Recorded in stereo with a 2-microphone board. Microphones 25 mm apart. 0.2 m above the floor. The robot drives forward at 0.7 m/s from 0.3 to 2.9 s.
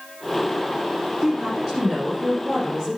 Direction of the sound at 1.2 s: 15° right (ahead or behind).